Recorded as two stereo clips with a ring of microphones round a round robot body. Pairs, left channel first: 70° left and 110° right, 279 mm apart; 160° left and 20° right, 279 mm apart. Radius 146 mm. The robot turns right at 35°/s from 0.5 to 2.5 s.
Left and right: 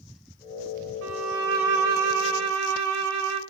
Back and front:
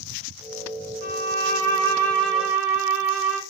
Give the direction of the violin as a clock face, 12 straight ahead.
5 o'clock.